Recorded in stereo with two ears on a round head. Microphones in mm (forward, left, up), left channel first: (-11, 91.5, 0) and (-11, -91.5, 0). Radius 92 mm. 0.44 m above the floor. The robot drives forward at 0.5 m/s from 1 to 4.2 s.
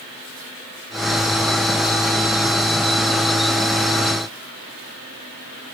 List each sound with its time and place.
Only background noise.